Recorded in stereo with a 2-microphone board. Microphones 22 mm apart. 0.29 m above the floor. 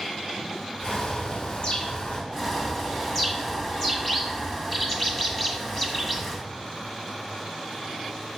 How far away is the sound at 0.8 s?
About 3 m.